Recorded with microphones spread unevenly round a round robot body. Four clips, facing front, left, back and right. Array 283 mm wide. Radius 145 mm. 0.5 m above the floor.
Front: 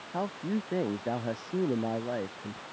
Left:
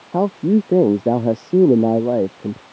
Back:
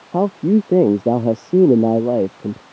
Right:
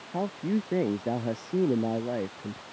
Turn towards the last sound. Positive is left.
turn(degrees=140)